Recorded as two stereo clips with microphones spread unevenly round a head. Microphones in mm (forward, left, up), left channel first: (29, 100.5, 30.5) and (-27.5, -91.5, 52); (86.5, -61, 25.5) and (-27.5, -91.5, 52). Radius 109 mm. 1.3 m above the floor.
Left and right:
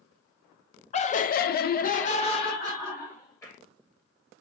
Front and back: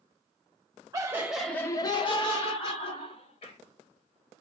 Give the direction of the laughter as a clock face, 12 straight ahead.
8 o'clock.